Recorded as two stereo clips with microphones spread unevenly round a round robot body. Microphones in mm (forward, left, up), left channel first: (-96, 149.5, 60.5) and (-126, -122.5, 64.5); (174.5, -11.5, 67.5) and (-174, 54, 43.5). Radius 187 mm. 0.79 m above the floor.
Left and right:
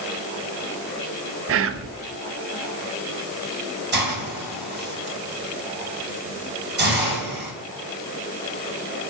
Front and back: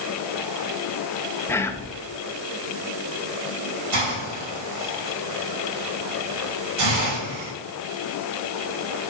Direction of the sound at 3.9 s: 150° right.